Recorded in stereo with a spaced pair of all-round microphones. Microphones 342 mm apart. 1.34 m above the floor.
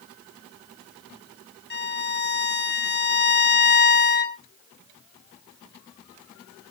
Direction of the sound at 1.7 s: 30° left (ahead or behind).